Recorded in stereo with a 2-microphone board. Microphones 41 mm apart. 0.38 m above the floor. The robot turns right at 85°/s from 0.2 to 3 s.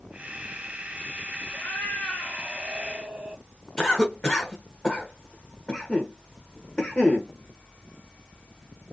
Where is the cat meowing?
50° left, 1.9 m; by 3.4 s 175° left, 1.9 m.